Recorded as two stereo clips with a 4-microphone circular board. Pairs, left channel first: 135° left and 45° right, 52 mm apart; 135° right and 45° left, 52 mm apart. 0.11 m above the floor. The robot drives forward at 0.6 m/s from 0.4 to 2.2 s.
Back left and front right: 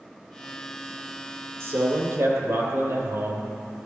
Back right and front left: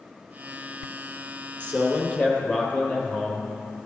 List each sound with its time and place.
1.6 s a man speaking: 70° right, 3 m; by 3.5 s 75° right, 3 m